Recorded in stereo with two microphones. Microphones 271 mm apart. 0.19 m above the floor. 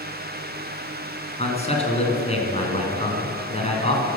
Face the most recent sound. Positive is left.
turn(degrees=25)  # may be behind; listen again after turning